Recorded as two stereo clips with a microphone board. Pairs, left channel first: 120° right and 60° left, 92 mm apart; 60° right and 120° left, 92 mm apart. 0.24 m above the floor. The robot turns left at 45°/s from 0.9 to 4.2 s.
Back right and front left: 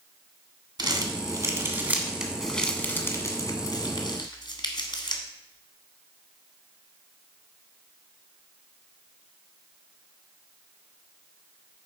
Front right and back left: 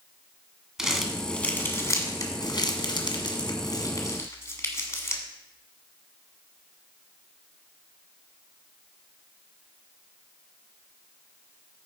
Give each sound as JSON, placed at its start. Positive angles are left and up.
{"t": 0.8, "sound": "crumpling", "azimuth_deg": 35, "distance_m": 1.5}